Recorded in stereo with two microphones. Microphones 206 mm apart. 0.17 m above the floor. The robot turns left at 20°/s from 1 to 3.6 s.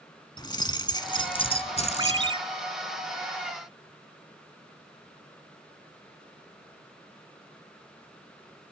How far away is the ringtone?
About 0.8 m.